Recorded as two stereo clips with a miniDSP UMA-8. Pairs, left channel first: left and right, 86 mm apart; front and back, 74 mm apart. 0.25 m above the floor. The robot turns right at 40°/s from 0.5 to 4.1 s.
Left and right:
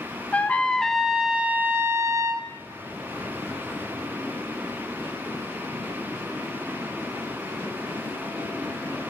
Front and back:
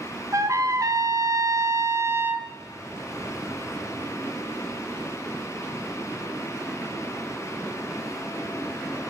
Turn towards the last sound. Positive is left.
turn(degrees=-55)